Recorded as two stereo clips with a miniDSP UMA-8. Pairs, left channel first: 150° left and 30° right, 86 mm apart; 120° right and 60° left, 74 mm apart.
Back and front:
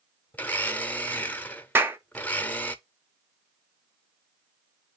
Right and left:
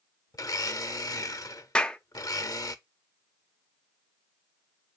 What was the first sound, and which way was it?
A blender, 145° right.